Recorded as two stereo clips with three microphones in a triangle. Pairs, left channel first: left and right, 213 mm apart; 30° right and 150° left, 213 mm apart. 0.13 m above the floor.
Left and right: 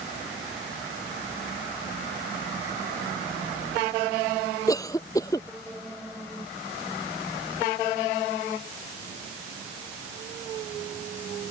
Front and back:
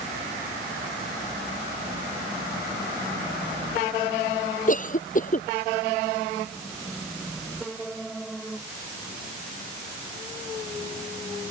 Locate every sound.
4.7 s a cough: 15° left